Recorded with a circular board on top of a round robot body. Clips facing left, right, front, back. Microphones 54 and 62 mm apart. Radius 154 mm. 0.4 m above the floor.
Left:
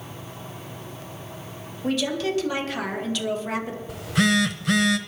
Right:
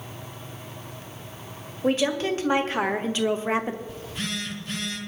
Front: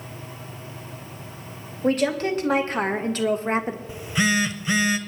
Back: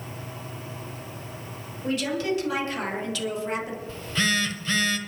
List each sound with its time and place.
1.8 s a woman speaking: 40° right, 2 m
3.9 s a phone buzzing: 75° left, 0.9 m